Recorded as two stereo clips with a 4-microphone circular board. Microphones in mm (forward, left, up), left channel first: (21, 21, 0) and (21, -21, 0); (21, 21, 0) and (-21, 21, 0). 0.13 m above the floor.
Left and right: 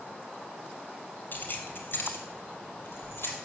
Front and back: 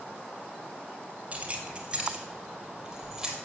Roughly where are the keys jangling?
Behind left.